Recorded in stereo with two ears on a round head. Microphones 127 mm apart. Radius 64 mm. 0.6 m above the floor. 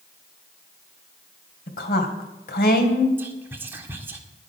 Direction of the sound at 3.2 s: 15° right (ahead or behind).